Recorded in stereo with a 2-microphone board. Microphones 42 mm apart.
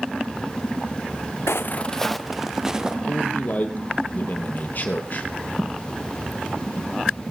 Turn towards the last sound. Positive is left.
turn(degrees=45)  # may be behind; listen again after turning